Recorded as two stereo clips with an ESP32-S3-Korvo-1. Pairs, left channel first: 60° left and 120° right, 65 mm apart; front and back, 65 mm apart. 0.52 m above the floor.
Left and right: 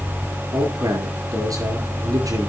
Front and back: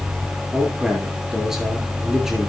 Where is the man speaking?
95° right, 7.5 m.